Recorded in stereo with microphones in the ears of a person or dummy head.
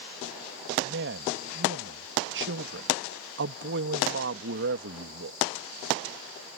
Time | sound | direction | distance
0.8 | a man speaking | 55° right (ahead or behind) | ?